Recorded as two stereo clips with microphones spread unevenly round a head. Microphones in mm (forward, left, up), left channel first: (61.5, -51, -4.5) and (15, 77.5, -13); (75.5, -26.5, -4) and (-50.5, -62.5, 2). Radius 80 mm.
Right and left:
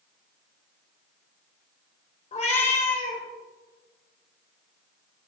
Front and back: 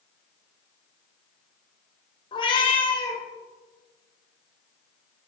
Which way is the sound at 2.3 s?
35° right.